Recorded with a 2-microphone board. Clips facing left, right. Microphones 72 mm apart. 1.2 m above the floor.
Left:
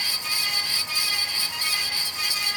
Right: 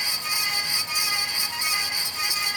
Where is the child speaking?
No child speaking in this recording.